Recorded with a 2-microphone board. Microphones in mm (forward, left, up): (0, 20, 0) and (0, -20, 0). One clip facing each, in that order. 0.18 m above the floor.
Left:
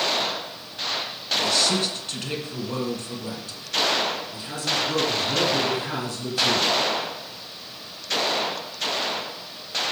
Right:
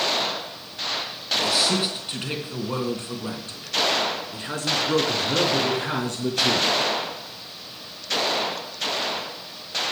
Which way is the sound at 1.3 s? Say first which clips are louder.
Even; 10° right (ahead or behind).